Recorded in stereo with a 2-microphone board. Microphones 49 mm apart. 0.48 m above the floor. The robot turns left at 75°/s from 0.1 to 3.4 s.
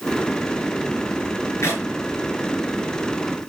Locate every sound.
1.6 s a clap: 60° left (ahead or behind), 5 m; by 1.8 s 45° left (ahead or behind), 5 m